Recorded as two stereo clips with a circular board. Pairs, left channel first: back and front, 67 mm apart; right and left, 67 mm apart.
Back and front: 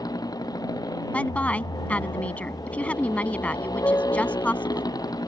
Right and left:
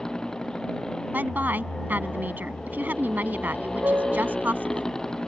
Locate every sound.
0.0 s a motorcycle: 170° right
1.1 s a woman speaking: 130° left
3.8 s a piano: 140° left